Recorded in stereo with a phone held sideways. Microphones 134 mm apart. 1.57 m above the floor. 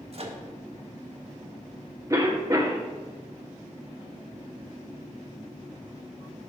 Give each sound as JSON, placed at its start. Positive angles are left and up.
{"t": 0.1, "sound": "a microwave", "side_deg": -50, "distance_m": 1.0}
{"t": 2.1, "sound": "a cough", "side_deg": -25, "distance_m": 1.2}